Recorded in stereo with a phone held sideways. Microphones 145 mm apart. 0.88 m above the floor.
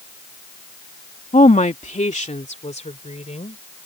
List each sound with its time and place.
1.3 s a woman speaking: 55° left (ahead or behind); by 3.6 s 50° left (ahead or behind)